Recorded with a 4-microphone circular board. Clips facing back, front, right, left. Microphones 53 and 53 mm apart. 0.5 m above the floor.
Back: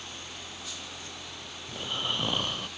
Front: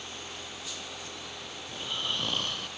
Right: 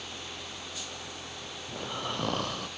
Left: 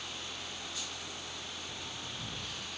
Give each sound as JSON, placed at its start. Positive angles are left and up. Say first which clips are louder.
{"t": 1.7, "sound": "snoring", "louder": "back 2 dB, right 8 dB", "azimuth_deg": -105}